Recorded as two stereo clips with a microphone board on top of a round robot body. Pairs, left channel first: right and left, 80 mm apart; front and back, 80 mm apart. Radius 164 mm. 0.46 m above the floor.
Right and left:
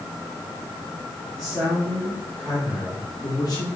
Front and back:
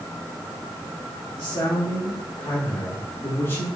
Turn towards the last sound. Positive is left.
turn(degrees=-50)